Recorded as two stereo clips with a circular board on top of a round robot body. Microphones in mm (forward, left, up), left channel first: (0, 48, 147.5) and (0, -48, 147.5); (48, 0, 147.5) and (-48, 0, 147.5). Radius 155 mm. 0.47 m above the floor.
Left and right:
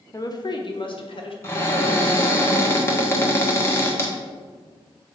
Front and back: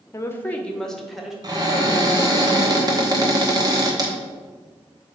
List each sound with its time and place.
0.1 s a woman speaking: 50° left, 1.1 m; by 1.3 s 95° left, 1.6 m
1.4 s a cupboard door: 150° left, 1.6 m